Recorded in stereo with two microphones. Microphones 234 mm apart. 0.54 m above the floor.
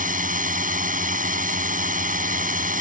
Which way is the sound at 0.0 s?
35° right (ahead or behind).